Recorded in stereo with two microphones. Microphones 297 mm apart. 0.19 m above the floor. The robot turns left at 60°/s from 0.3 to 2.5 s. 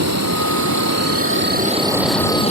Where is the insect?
70° right; by 2.5 s 155° left.